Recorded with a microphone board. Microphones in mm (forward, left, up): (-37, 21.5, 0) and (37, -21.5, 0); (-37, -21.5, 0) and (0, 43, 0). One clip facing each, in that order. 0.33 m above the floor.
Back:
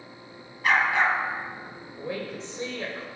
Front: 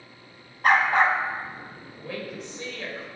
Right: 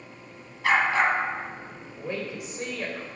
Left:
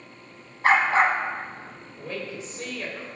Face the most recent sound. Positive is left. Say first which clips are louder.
# back 2 dB, right 1 dB
turn(degrees=-175)